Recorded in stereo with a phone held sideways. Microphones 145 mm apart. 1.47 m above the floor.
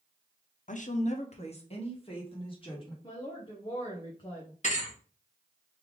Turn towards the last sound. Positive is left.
turn(degrees=50)  # may be behind; listen again after turning